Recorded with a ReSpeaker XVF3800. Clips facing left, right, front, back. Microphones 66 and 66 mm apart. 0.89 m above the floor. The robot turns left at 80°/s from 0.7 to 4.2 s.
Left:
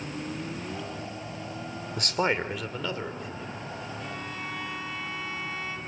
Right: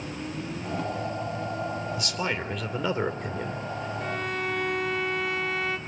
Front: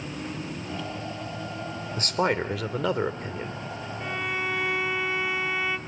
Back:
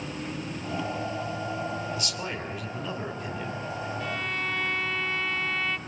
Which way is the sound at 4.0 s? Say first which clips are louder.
Right 6 dB, front 5 dB; 60° right.